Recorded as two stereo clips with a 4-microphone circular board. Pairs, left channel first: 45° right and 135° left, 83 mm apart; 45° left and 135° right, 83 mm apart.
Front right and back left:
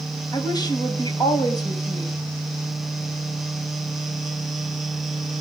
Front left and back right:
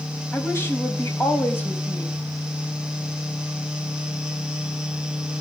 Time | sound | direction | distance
0.3 | a woman speaking | 15° right | 4 m